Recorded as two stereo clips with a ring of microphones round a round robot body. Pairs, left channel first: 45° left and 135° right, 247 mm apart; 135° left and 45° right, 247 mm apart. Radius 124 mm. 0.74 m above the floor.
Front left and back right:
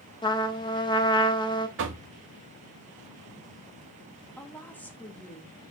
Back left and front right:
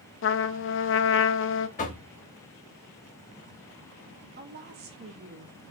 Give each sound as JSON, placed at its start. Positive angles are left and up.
{"t": 0.2, "sound": "a trumpet", "azimuth_deg": 115, "distance_m": 0.6}
{"t": 1.8, "sound": "knocking", "azimuth_deg": -170, "distance_m": 1.2}
{"t": 4.4, "sound": "a woman speaking", "azimuth_deg": -35, "distance_m": 1.3}